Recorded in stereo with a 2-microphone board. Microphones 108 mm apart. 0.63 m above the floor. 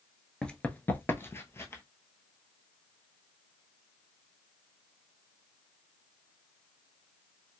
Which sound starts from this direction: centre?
Running footsteps, at 0.4 s.